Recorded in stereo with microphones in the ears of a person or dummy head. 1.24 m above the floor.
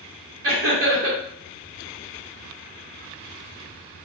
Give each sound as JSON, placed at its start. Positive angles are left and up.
{"t": 0.4, "sound": "laughter", "side_deg": -75, "distance_m": 1.8}